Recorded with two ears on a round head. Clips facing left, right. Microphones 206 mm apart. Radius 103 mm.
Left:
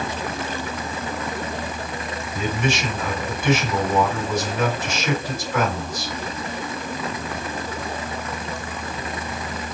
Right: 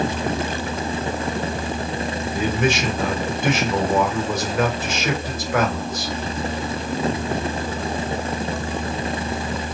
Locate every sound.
2.3 s a man speaking: 50° right (ahead or behind), 1.8 m